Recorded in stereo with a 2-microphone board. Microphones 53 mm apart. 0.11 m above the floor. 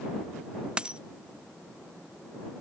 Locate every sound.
0.8 s a dropped coin: 20° right (ahead or behind)